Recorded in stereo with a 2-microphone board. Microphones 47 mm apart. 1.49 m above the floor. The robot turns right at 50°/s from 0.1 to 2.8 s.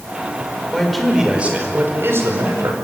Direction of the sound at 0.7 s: 170° left.